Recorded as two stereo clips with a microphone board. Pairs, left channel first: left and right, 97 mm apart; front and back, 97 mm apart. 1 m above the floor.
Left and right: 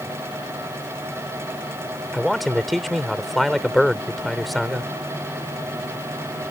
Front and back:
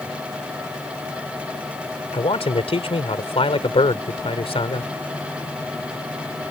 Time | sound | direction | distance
2.1 | a man speaking | straight ahead | ?